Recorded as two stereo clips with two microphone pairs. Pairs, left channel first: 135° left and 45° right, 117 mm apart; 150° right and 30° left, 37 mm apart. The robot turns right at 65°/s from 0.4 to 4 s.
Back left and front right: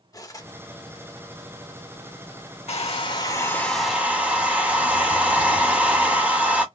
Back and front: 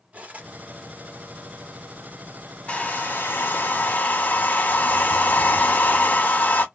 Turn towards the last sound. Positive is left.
turn(degrees=-125)